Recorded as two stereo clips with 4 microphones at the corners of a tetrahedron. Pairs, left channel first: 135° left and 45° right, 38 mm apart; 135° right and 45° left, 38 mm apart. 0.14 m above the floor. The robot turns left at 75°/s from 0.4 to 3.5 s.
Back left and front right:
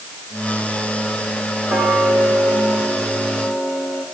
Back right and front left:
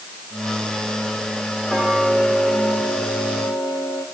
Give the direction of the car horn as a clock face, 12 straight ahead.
I don't hear a car horn.